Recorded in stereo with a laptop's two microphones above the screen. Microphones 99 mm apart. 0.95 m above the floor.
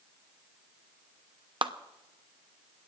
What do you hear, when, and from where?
1.6 s a clap: 50° right (ahead or behind), 0.8 m